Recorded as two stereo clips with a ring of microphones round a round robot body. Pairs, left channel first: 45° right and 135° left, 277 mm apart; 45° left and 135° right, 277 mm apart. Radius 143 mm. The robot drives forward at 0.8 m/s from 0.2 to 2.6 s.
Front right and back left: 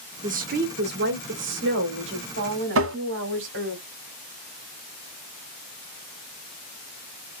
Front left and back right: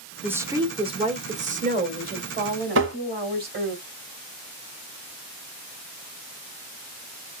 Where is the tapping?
Straight behind, 0.8 m.